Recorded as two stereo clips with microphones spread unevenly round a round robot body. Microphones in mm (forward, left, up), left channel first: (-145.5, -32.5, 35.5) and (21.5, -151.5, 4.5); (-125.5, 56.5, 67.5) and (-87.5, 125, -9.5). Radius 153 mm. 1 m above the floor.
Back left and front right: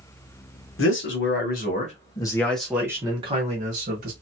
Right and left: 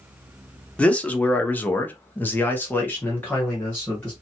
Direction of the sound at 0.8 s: 125° left.